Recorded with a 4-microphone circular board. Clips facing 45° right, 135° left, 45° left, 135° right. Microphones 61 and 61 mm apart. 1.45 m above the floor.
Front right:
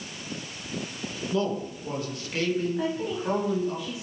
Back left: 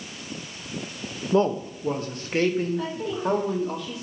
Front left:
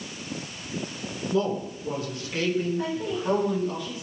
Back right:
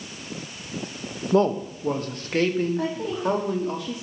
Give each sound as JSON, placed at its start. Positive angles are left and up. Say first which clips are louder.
{"t": 1.3, "sound": "a man speaking", "louder": "back left 6 dB, back right 6 dB", "azimuth_deg": -170, "distance_m": 1.1}
{"t": 2.8, "sound": "a woman speaking", "louder": "even, back right 1 dB", "azimuth_deg": -125, "distance_m": 3.5}